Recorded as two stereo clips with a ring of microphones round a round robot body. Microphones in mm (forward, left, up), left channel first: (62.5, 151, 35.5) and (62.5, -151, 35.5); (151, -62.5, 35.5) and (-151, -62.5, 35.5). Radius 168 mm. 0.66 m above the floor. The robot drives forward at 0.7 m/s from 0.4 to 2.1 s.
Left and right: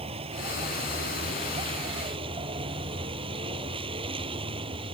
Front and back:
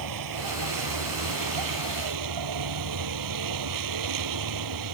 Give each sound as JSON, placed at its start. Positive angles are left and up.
{"t": 0.0, "sound": "a vehicle", "azimuth_deg": -165}